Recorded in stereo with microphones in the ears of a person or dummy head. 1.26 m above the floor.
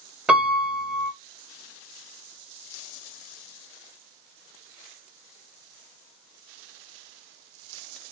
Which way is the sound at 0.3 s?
5° right (ahead or behind).